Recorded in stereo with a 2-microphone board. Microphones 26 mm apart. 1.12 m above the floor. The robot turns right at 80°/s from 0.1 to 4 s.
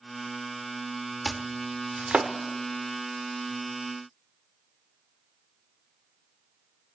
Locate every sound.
1.2 s chopping: 5° left (ahead or behind), 1.3 m; by 2.3 s 65° right (ahead or behind), 1.3 m